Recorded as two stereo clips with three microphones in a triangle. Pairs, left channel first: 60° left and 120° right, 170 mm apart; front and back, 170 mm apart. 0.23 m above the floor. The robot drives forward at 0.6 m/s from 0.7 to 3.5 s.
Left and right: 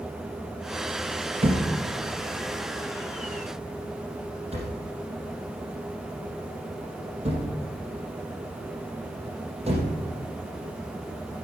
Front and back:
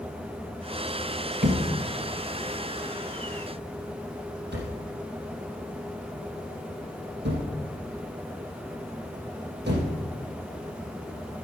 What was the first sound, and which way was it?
A thud, 170° right.